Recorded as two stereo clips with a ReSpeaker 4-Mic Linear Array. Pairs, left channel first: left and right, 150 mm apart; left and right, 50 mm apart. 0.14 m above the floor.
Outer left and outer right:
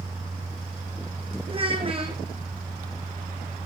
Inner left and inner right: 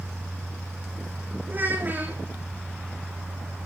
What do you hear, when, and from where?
1.5 s a child speaking: 35° right (ahead or behind), 5.5 m